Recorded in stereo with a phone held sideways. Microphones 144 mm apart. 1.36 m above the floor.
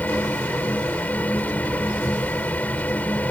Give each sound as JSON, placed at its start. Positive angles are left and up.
{"t": 0.0, "sound": "a fan", "side_deg": 10}